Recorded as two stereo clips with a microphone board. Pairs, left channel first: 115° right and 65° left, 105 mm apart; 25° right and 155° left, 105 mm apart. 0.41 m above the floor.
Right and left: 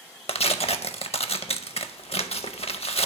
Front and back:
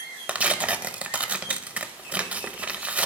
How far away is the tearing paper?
About 0.5 m.